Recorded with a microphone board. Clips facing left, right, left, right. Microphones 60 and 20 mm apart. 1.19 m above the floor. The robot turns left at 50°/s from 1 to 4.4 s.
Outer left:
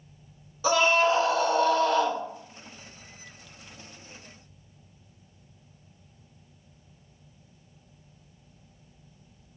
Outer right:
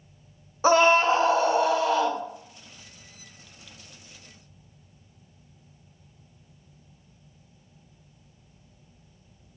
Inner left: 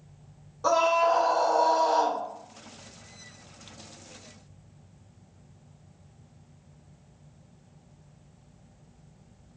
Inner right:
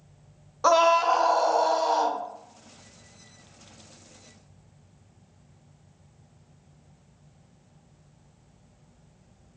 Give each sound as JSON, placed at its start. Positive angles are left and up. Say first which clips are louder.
{"t": 0.6, "sound": "a scream", "louder": "outer right 4 dB, inner right 3 dB", "azimuth_deg": -125, "distance_m": 0.6}